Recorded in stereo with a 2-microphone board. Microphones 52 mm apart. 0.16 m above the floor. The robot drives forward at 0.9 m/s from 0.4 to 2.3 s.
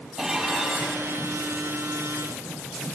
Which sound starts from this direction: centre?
Dishes clattering, at 0.2 s.